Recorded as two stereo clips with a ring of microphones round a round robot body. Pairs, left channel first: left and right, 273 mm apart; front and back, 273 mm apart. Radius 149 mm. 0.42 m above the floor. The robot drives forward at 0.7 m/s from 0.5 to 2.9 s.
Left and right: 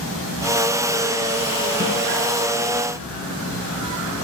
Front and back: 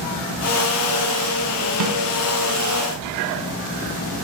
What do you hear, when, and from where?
1.8 s a snare drum: 155° right, 3.5 m